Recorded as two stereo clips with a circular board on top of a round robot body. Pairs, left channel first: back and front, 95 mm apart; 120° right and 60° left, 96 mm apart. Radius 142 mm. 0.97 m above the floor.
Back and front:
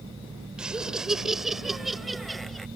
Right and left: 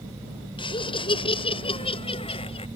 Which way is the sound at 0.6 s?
80° right.